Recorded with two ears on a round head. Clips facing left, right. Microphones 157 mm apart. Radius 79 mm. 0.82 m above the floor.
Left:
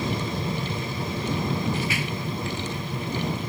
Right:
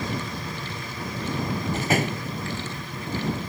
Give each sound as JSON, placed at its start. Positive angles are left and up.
{"t": 0.0, "sound": "an aircraft", "side_deg": 25}
{"t": 1.7, "sound": "a door slam", "side_deg": -40}